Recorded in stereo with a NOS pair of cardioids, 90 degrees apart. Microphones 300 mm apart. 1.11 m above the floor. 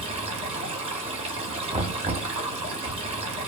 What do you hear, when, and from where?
0.0 s running water: 20° right, 0.9 m
1.7 s knocking: 15° right, 1.1 m